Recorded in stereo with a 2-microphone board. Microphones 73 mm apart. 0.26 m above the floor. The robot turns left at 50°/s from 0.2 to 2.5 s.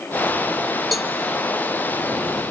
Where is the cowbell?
Centre (ahead or behind), 0.6 m; by 1.1 s 5° right (ahead or behind), 0.6 m.